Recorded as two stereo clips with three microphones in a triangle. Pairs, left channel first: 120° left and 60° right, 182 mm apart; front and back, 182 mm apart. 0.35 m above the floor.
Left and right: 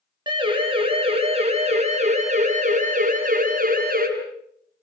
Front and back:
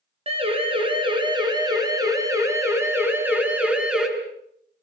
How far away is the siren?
About 6 m.